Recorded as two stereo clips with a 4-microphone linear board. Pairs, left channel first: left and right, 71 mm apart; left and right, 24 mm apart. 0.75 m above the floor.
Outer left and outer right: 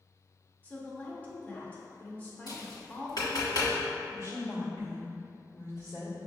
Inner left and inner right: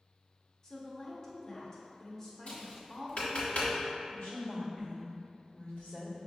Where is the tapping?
60° left (ahead or behind), 1.6 m.